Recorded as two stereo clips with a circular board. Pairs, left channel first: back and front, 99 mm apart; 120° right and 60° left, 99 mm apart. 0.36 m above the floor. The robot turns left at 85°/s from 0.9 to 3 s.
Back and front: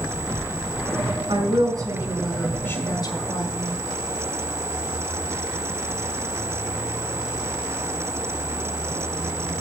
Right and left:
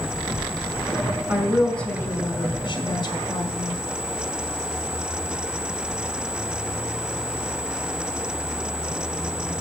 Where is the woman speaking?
Straight ahead, 2 m; by 3.8 s 145° right, 2 m.